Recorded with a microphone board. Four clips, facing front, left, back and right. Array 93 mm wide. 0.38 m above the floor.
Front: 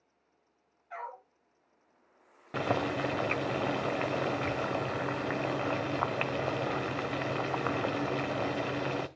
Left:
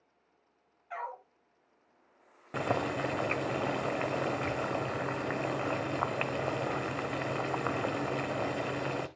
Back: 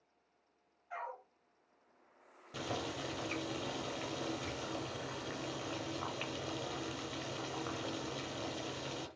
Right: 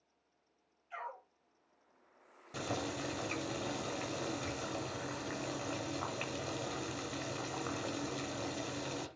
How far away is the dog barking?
About 5.5 m.